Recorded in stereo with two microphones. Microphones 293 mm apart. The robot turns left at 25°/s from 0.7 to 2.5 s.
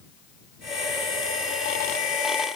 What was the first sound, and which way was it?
Only background noise.